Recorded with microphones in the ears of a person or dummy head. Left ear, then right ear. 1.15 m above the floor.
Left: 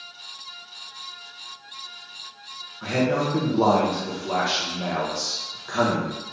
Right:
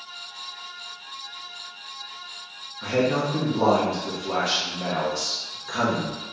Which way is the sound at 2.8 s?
15° left (ahead or behind).